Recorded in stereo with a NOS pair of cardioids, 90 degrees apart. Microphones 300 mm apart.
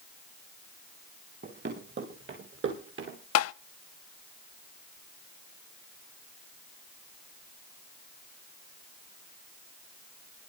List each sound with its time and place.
1.4 s running footsteps: 35° right, 8.5 m; by 3.2 s 45° right, 9.5 m
3.4 s tapping: 60° left, 0.6 m